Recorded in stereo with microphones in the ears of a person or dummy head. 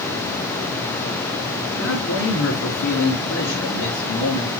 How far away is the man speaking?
About 4.5 m.